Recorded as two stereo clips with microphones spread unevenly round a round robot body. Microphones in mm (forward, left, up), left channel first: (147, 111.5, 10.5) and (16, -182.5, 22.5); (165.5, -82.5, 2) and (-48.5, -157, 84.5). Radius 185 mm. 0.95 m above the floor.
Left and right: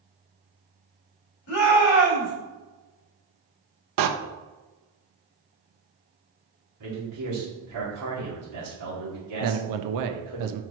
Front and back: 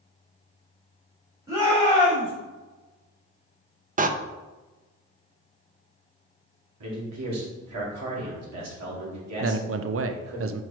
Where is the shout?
115° left, 2.5 m.